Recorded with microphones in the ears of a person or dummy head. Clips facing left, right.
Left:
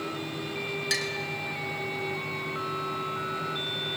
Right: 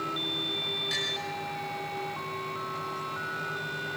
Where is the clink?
75° left (ahead or behind), 1.9 m.